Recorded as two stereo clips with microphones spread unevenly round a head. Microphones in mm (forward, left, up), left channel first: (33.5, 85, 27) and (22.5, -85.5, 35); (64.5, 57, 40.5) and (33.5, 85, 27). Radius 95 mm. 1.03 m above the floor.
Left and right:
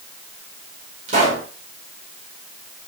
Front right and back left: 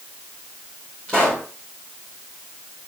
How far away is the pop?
About 5 m.